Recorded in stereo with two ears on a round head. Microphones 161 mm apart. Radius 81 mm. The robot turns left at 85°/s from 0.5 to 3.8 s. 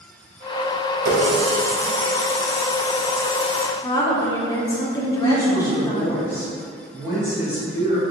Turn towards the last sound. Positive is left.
turn(degrees=-15)  # may be behind; listen again after turning